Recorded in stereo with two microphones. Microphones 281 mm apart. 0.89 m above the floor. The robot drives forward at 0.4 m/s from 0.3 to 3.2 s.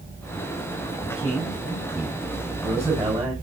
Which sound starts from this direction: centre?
A man speaking, at 1.0 s.